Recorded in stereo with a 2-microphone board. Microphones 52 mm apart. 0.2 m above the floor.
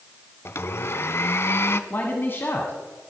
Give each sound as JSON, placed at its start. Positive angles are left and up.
{"t": 0.5, "sound": "a blender", "side_deg": 55, "distance_m": 0.7}
{"t": 1.9, "sound": "a man speaking", "side_deg": 45, "distance_m": 1.6}